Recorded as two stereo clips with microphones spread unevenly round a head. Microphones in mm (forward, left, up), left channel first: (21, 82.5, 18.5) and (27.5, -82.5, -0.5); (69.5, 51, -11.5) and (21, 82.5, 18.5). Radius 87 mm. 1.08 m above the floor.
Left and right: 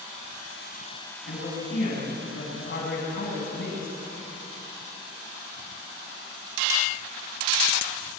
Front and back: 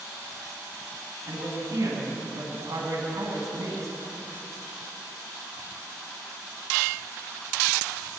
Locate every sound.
1.2 s a man speaking: 130° left, 9 m